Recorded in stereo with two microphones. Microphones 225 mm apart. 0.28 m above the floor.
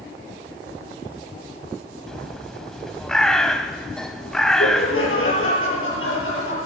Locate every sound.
2.1 s a bird: 5° left (ahead or behind), 0.8 m
4.6 s laughter: 65° left (ahead or behind), 6.5 m